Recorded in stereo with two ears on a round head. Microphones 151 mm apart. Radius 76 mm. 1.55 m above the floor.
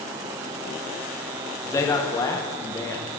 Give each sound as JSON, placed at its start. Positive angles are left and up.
{"t": 1.6, "sound": "a man speaking", "side_deg": 20, "distance_m": 1.2}